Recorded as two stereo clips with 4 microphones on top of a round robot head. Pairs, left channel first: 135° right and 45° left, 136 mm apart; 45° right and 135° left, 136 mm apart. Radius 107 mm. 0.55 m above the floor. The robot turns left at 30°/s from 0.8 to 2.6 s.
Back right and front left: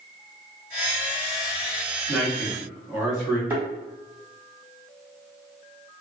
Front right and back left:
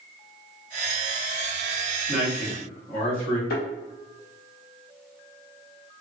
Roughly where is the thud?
Ahead right.